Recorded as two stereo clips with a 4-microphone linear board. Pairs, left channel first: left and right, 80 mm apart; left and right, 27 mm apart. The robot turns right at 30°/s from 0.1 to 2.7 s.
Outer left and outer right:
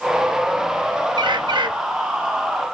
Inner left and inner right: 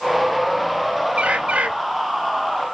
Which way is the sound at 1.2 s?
70° right (ahead or behind).